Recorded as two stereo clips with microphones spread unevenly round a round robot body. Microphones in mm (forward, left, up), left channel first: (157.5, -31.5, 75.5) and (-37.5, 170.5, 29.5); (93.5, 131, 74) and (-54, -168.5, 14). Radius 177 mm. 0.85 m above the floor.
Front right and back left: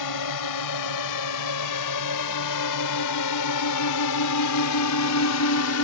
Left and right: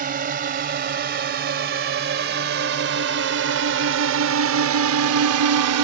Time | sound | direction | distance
0.0 | a drone | 50° right | ?